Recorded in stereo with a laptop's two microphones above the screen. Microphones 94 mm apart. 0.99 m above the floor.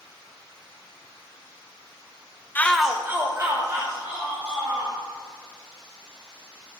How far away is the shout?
About 0.7 m.